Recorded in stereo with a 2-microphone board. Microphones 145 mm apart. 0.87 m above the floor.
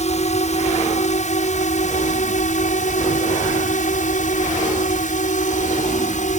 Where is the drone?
55° left (ahead or behind); by 6.4 s 60° left (ahead or behind).